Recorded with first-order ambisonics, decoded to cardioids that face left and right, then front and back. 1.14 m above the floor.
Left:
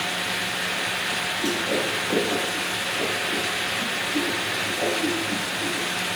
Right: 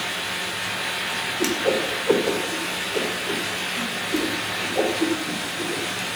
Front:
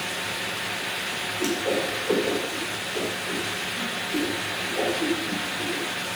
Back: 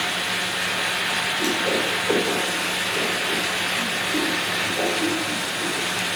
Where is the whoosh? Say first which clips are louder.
Right 5 dB, back 4 dB; 90° right, 2 m.